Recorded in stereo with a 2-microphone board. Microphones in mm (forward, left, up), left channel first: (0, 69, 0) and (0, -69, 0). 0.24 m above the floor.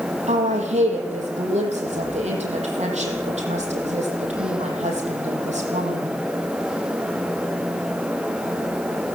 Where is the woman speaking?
60° right (ahead or behind), 8.5 m.